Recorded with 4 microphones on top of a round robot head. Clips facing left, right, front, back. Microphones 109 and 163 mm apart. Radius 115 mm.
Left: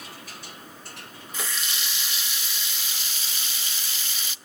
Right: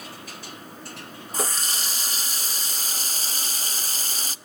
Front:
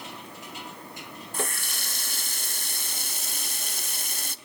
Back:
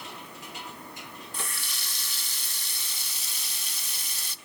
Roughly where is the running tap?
Ahead right.